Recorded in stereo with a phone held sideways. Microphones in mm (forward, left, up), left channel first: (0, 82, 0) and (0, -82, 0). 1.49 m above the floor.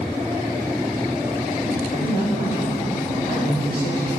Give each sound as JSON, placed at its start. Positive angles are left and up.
{"t": 1.9, "sound": "a man speaking", "side_deg": 80, "distance_m": 3.0}